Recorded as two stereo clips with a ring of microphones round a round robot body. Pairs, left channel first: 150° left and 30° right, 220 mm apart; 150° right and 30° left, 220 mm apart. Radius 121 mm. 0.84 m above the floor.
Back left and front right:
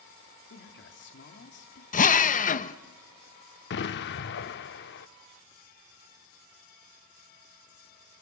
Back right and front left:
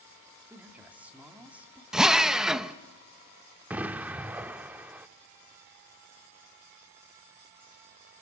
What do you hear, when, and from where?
0.5 s a man speaking: 115° left, 2 m
1.9 s a drill: 115° left, 1.1 m
3.7 s an explosion: 115° left, 0.6 m